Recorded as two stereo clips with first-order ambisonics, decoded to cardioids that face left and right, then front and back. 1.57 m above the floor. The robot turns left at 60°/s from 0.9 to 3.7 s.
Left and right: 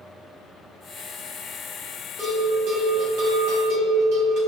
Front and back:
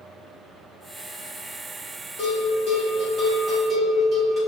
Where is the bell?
20° right, 1.7 m; by 4.4 s 110° right, 1.7 m.